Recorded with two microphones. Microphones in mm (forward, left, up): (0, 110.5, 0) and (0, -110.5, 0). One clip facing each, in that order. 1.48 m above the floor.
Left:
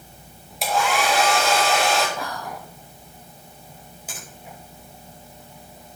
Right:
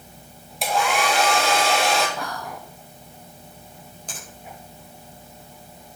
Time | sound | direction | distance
0.6 | a hair dryer | centre (ahead or behind) | 2 m
2.2 | whispering | centre (ahead or behind) | 0.9 m
4.1 | a finger snap | 5° left (ahead or behind) | 5 m